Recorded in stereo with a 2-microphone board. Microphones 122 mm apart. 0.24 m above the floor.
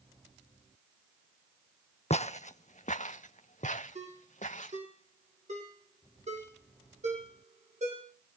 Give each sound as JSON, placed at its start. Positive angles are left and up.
{"t": 2.1, "sound": "footsteps", "side_deg": 65, "distance_m": 0.5}
{"t": 4.0, "sound": "a ringtone", "side_deg": -70, "distance_m": 8.5}